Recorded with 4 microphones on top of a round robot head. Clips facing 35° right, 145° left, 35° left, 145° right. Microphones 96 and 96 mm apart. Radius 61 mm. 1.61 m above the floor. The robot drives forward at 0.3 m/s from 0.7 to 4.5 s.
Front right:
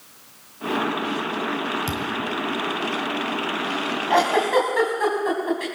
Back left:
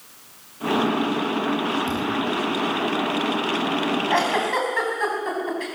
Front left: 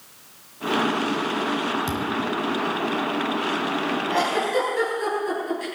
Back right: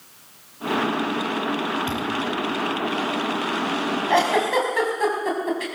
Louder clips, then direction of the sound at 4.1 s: Front right 6 dB, back right 4 dB; 110° right.